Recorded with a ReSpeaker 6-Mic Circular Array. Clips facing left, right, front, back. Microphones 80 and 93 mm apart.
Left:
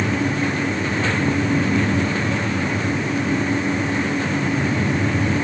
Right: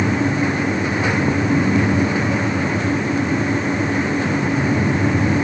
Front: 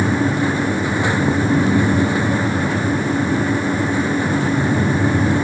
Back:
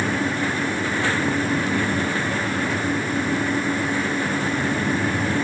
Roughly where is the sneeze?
I don't hear a sneeze.